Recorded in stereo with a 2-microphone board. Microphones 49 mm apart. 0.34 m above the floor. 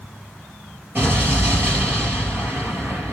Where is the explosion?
40° right (ahead or behind), 3.5 m.